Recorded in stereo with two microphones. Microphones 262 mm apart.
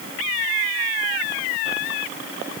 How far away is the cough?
I don't hear a cough.